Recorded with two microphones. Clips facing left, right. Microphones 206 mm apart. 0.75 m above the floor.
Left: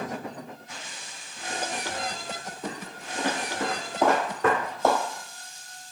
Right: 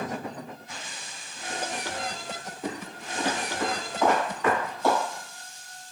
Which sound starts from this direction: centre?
Footsteps, at 2.6 s.